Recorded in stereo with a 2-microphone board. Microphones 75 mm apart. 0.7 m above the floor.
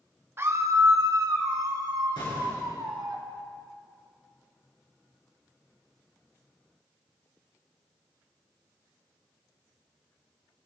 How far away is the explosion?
About 4 m.